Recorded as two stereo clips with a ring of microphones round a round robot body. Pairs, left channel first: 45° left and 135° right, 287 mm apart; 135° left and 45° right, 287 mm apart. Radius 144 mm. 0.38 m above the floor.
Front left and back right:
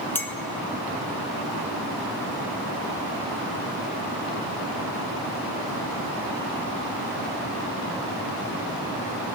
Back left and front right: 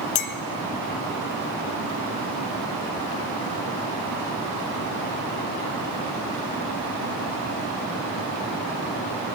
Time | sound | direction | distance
0.1 | a clink | 125° left | 0.6 m